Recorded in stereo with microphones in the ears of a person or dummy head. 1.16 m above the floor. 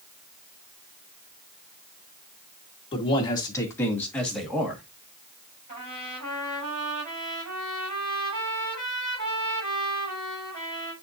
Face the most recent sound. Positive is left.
turn(degrees=-50)  # may be behind; listen again after turning